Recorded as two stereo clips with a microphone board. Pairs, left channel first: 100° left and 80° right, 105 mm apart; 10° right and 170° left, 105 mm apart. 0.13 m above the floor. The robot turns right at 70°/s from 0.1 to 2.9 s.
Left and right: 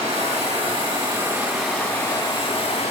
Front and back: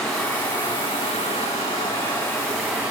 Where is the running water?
100° right, 3 m; by 2.9 s 95° left, 3 m.